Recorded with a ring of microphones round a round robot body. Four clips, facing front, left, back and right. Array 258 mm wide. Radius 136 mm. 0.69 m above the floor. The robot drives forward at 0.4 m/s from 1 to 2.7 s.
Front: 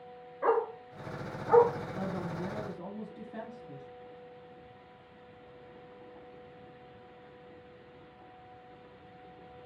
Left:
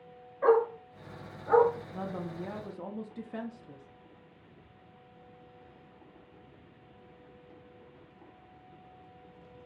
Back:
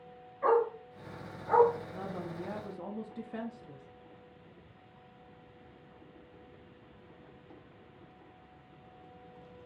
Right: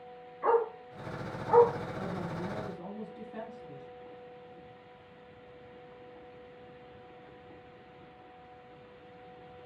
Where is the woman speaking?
90° left, 0.8 m; by 3.9 s 120° left, 0.8 m.